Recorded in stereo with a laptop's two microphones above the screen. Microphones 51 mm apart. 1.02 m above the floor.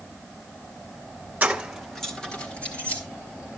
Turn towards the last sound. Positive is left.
turn(degrees=30)  # may be behind; listen again after turning